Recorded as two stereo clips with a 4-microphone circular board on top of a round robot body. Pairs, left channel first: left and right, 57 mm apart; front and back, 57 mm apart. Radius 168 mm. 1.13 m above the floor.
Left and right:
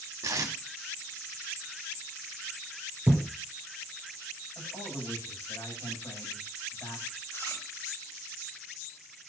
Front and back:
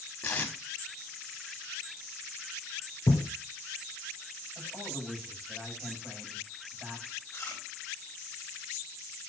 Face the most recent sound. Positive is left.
turn(degrees=40)